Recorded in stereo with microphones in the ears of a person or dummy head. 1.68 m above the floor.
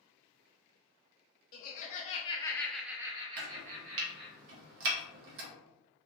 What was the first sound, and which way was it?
Laughter, 50° left (ahead or behind).